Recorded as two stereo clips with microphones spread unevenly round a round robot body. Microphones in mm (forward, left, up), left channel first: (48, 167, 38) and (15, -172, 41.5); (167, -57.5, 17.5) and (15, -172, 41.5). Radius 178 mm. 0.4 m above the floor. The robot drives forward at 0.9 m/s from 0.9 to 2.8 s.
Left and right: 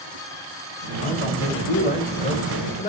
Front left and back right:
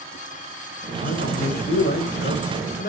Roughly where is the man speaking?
Ahead.